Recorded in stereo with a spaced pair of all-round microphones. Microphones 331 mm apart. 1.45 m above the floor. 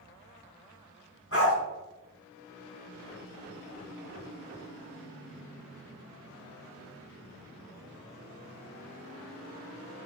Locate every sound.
1.3 s a dog barking: 45° left (ahead or behind), 4.5 m